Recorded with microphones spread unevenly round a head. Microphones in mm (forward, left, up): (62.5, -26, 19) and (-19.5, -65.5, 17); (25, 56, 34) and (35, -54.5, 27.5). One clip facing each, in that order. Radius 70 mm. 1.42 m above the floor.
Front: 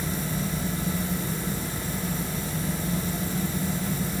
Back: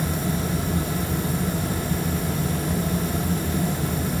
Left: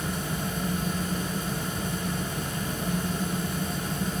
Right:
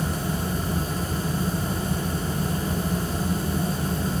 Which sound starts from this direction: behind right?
A fan, at 0.0 s.